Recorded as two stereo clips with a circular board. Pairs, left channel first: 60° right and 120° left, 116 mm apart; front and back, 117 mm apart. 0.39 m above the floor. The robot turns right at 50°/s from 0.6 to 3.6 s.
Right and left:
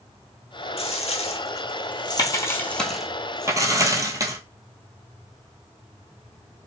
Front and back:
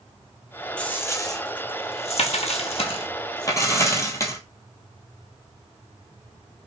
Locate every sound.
0.8 s a dropped coin: 80° right, 0.8 m; by 4.4 s 60° left, 0.8 m